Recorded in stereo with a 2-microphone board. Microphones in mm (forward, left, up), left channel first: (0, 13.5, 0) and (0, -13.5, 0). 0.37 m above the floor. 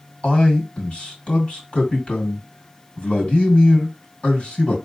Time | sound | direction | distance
0.2 | a man speaking | 45° left (ahead or behind) | 2.5 m